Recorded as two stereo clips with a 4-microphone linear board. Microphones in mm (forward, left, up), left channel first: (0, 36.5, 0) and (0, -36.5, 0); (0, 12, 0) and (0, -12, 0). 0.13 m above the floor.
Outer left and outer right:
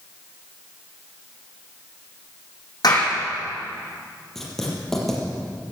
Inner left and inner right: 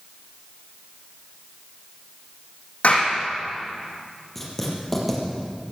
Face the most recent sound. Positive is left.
turn(degrees=5)  # may be behind; listen again after turning